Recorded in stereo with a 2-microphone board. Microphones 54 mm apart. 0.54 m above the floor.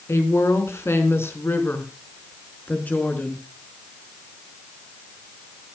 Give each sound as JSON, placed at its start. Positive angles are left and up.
{"t": 0.1, "sound": "a woman speaking", "side_deg": 60, "distance_m": 5.0}